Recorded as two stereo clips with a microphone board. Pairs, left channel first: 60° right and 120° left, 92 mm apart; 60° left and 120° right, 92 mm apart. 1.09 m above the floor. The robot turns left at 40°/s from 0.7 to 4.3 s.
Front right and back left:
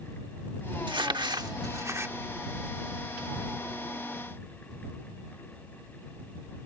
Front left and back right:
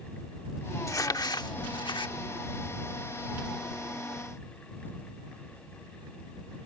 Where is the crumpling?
110° left; by 2.1 s 60° left.